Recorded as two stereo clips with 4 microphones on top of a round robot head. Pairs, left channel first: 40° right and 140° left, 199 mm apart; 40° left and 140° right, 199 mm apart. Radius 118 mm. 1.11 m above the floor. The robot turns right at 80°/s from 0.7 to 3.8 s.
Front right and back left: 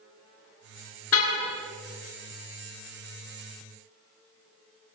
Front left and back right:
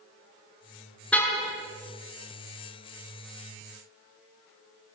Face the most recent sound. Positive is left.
turn(degrees=170)